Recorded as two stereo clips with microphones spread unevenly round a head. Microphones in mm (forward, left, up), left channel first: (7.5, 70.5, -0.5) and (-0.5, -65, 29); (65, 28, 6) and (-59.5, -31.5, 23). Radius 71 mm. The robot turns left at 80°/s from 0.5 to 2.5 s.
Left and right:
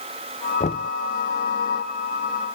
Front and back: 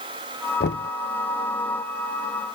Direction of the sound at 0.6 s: 45° left.